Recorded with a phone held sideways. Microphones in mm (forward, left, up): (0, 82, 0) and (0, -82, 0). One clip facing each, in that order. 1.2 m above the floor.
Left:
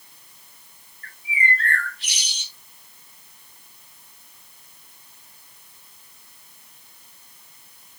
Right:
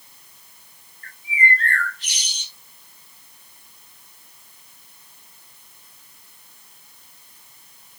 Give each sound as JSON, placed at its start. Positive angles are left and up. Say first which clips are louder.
{"t": 1.0, "sound": "a bird", "louder": "right 2 dB", "side_deg": -40, "distance_m": 3.0}